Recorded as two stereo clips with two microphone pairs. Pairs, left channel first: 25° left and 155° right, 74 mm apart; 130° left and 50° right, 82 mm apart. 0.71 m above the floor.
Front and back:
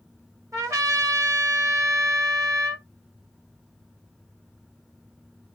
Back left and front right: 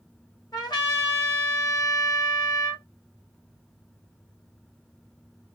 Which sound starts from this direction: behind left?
A trumpet, at 0.5 s.